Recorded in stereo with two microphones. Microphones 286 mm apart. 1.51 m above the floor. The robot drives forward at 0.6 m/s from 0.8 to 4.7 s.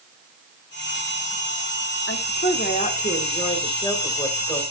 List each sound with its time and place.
2.1 s a woman speaking: 40° left (ahead or behind), 0.8 m; by 4.6 s 15° left (ahead or behind), 2 m